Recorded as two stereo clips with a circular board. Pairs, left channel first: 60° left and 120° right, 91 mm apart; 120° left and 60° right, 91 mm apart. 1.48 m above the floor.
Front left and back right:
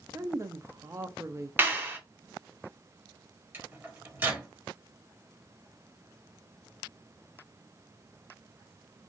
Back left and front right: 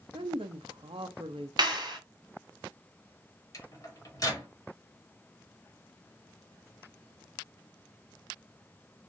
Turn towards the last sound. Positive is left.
turn(degrees=170)